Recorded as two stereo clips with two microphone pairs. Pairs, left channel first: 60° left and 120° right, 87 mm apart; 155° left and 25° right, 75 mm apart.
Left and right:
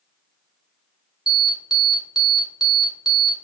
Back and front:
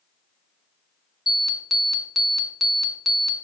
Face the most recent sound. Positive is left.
turn(degrees=65)